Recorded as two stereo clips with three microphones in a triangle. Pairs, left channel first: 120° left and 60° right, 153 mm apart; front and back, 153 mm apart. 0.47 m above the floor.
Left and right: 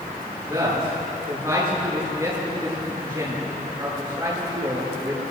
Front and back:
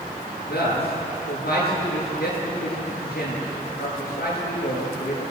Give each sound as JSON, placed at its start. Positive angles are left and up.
{"t": 0.5, "sound": "a man speaking", "azimuth_deg": 10, "distance_m": 8.0}